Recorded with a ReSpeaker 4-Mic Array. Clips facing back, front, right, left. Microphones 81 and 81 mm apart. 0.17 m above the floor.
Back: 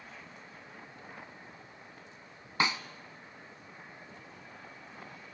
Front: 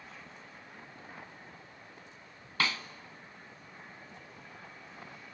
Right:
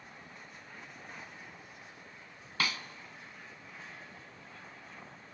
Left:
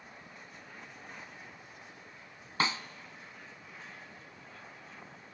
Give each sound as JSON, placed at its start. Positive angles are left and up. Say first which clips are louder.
{"t": 2.6, "sound": "a snare drum", "louder": "back 2 dB, left 3 dB", "azimuth_deg": 125, "distance_m": 0.8}